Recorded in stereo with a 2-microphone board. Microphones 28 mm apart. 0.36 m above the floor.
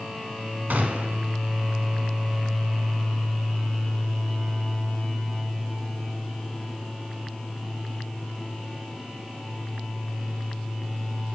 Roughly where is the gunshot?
Right.